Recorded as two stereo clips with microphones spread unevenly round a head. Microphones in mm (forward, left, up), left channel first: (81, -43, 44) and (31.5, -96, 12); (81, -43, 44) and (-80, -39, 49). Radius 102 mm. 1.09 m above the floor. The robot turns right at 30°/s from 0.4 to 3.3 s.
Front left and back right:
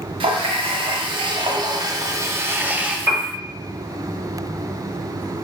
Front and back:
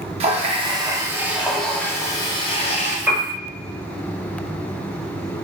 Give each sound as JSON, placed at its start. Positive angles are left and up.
{"t": 0.2, "sound": "a running tap", "azimuth_deg": -125, "distance_m": 0.6}
{"t": 3.1, "sound": "a piano", "azimuth_deg": -105, "distance_m": 1.4}